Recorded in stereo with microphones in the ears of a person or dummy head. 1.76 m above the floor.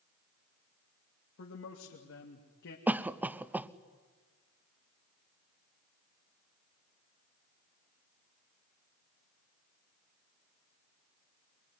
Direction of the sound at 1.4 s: 80° left.